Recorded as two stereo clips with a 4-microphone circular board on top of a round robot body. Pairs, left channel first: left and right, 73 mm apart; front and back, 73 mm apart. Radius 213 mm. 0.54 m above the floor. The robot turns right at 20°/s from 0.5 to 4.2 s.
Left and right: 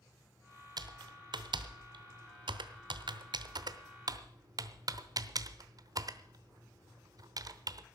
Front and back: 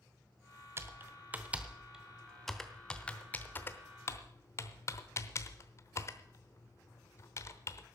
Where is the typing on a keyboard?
120° right, 0.9 m; by 7.8 s 55° right, 0.9 m.